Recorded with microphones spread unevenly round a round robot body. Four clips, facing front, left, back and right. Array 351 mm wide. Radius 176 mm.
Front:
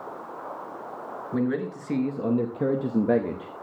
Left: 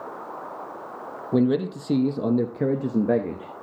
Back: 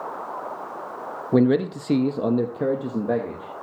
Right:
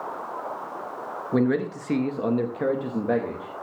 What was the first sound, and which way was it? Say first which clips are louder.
A man speaking: left 2 dB, back 8 dB; 170° left.